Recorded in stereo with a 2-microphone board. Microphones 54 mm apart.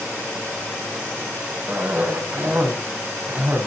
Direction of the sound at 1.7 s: 40° right (ahead or behind).